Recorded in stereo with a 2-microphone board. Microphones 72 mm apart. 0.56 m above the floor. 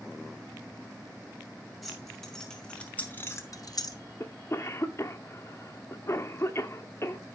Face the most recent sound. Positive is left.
turn(degrees=40)  # may be behind; listen again after turning